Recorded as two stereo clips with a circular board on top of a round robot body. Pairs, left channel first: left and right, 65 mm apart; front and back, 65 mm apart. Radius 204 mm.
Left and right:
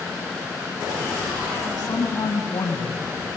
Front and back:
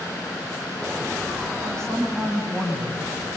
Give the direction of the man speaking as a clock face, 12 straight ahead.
10 o'clock.